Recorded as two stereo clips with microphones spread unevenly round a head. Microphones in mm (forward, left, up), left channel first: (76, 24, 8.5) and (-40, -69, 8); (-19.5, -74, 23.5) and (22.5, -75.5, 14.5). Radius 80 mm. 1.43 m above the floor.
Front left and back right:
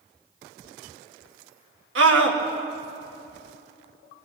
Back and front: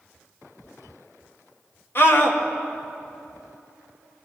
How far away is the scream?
About 1.9 m.